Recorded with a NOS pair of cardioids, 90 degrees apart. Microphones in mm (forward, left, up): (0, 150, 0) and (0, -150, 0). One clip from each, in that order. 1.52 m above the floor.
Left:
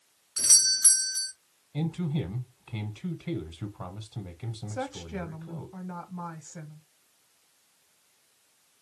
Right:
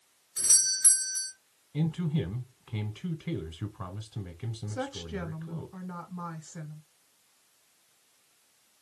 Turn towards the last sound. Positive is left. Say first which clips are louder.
# left 1 dB
turn(degrees=0)